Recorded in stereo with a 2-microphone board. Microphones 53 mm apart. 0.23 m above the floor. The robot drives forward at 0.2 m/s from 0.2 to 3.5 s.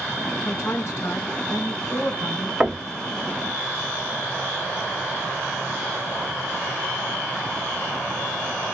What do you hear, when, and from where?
0.5 s a woman speaking: 55° left (ahead or behind), 2.5 m
2.6 s knocking: 20° right (ahead or behind), 0.7 m; by 2.9 s 15° right (ahead or behind), 0.7 m